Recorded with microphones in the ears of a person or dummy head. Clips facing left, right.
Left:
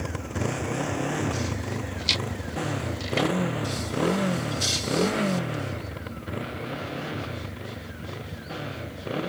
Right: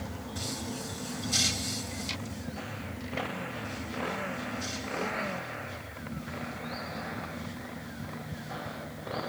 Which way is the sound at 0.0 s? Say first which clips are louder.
Left 8 dB; 90° left.